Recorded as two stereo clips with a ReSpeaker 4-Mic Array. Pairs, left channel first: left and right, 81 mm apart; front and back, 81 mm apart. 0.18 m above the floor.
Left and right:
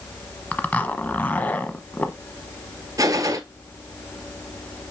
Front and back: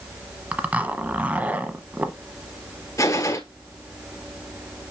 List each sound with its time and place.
0.5 s a zipper: 135° left, 1.0 m
3.0 s a gunshot: 45° right, 1.0 m